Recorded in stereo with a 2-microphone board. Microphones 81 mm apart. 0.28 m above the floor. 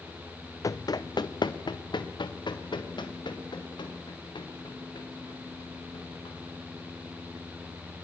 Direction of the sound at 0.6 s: 45° left (ahead or behind).